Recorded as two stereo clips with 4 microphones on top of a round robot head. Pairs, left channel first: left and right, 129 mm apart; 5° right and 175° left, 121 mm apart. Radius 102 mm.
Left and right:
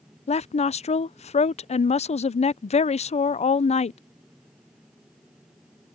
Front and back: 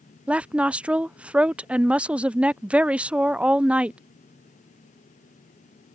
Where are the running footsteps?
I don't hear running footsteps.